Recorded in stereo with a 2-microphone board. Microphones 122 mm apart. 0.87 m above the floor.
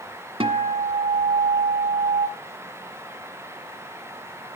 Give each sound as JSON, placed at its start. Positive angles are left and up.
{"t": 0.4, "sound": "a guitar", "side_deg": -50, "distance_m": 1.1}